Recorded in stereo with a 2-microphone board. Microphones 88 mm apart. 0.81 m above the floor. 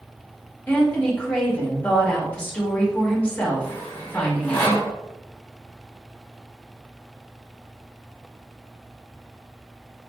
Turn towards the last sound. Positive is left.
turn(degrees=25)  # may be behind; listen again after turning